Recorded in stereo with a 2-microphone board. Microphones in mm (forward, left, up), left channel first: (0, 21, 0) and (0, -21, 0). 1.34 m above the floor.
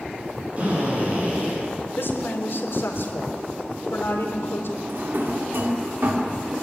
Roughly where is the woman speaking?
Left.